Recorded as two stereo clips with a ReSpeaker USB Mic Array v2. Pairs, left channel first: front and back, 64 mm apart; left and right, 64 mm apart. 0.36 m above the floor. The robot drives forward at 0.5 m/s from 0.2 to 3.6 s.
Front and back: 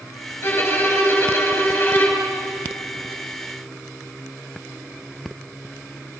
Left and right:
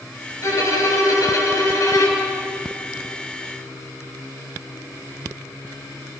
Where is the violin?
50° left, 7 m; by 2.3 s 60° left, 6.5 m.